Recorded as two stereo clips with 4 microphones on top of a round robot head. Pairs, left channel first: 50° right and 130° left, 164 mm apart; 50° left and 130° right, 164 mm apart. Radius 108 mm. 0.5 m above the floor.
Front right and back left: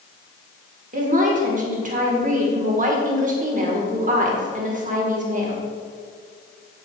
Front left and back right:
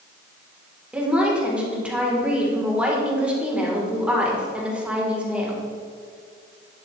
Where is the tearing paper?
I don't hear tearing paper.